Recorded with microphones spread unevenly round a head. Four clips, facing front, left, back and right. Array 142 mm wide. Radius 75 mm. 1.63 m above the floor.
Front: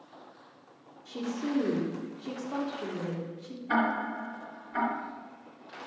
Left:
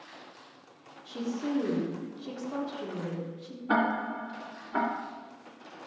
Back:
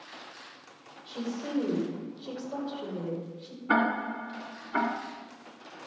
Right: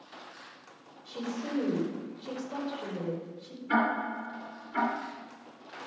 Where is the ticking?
130° left, 2 m.